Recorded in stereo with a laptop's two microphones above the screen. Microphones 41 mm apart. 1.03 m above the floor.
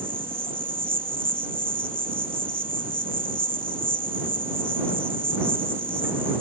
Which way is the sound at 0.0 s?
70° right (ahead or behind).